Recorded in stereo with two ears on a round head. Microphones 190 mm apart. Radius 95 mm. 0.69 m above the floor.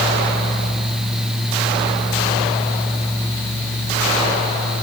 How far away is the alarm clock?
I don't hear an alarm clock.